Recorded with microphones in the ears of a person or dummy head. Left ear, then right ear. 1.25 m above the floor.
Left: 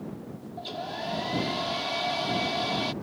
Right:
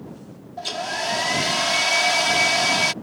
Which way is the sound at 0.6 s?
65° right (ahead or behind).